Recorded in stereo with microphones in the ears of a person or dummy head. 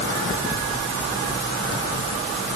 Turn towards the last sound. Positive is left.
No sound to turn to.